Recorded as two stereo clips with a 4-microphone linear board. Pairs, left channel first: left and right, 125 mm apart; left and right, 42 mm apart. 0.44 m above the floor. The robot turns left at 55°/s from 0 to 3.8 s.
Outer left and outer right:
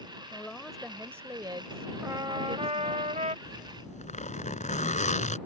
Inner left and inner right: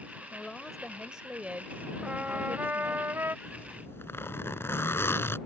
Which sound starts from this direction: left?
A zipper, at 3.5 s.